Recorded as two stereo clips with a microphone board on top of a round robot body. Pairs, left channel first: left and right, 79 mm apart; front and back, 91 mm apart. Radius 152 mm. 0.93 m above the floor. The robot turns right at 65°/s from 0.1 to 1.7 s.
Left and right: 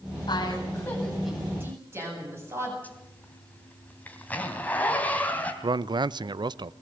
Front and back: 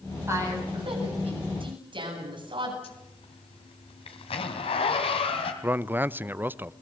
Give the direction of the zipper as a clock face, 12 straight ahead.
11 o'clock.